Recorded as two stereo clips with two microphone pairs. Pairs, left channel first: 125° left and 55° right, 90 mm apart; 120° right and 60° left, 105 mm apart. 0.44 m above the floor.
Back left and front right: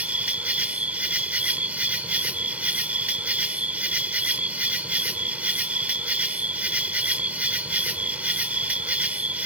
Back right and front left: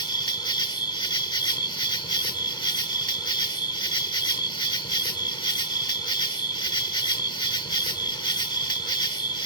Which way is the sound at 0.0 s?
125° right.